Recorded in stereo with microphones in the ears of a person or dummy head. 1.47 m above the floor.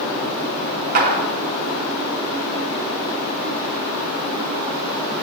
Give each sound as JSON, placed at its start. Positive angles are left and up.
{"t": 0.9, "sound": "a clap", "side_deg": -55, "distance_m": 3.5}